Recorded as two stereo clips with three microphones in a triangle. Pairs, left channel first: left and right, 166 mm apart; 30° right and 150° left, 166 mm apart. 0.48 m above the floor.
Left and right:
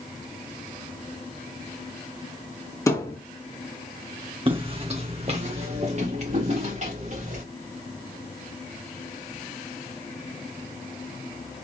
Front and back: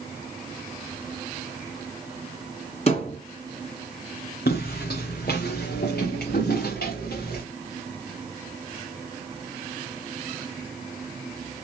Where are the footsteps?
35° right, 1.4 m; by 7.4 s 50° right, 3 m.